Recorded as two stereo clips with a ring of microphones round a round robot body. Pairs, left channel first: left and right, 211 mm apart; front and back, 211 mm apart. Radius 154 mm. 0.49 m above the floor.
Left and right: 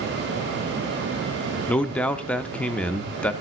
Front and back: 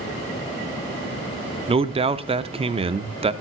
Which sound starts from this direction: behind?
A man speaking, at 1.7 s.